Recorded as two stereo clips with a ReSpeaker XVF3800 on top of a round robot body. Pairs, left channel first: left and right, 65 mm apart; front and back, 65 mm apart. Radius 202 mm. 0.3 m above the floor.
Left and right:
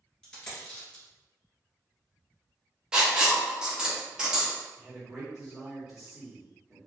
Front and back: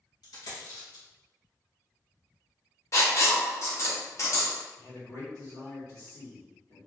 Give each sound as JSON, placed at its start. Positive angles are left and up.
{"t": 0.2, "sound": "a dropped coin", "azimuth_deg": 10, "distance_m": 1.9}
{"t": 2.9, "sound": "writing", "azimuth_deg": -15, "distance_m": 1.4}
{"t": 4.8, "sound": "a man speaking", "azimuth_deg": -15, "distance_m": 1.7}